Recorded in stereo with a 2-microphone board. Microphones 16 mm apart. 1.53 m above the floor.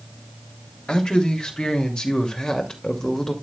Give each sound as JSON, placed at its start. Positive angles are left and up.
{"t": 0.9, "sound": "a man speaking", "side_deg": 60, "distance_m": 3.0}